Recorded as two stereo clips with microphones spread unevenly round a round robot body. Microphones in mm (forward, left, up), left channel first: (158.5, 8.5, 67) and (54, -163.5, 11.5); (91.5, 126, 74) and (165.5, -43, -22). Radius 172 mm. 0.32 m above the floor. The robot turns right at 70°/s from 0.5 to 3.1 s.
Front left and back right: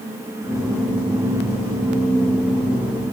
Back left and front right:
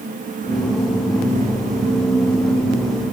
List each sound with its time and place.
Only background noise.